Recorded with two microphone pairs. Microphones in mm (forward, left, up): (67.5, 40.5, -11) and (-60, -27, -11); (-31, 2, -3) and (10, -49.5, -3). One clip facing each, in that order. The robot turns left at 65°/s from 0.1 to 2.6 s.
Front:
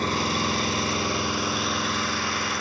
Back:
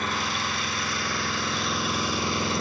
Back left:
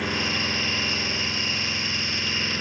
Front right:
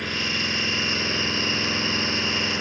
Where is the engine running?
45° left, 1.3 m; by 2.6 s 120° right, 1.3 m.